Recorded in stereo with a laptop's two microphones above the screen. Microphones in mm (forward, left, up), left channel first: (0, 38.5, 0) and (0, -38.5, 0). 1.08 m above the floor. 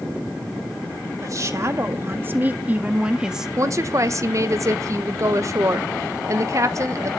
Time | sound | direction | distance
1.2 | a woman speaking | 45° right (ahead or behind) | 1.8 m
3.6 | a woman speaking | 45° right (ahead or behind) | 0.9 m